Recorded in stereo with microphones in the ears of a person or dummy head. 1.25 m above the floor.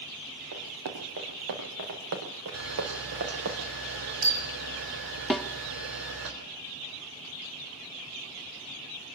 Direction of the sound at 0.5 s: 75° right (ahead or behind).